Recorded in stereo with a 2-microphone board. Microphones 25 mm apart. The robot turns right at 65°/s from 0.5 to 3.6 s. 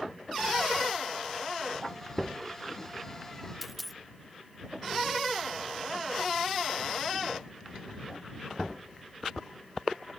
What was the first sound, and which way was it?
A dropped coin, centre (ahead or behind).